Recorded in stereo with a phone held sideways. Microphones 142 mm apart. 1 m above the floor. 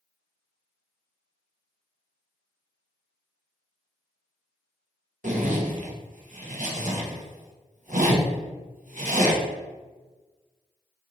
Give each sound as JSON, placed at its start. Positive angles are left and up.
{"t": 5.2, "sound": "a zipper", "side_deg": -65, "distance_m": 0.8}